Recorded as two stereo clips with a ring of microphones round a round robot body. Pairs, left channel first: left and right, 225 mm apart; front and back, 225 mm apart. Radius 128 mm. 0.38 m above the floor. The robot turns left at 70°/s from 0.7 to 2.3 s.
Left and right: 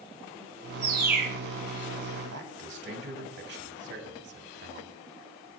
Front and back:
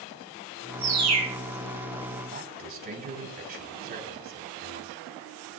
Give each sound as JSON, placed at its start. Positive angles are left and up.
{"t": 0.8, "sound": "a bird", "azimuth_deg": -150, "distance_m": 4.5}
{"t": 2.3, "sound": "a man speaking", "azimuth_deg": -130, "distance_m": 3.0}